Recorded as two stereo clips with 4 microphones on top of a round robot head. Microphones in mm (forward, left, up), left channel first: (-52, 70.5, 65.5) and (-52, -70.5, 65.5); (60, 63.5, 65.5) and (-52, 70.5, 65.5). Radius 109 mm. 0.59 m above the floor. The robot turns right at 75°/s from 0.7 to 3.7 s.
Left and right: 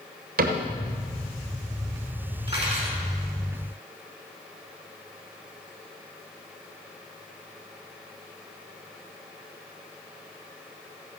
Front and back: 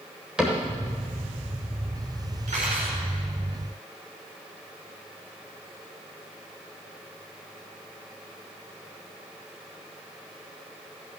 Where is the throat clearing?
I don't hear throat clearing.